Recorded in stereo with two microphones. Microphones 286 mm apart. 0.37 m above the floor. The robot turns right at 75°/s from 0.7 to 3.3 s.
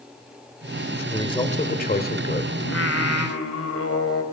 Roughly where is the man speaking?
Ahead.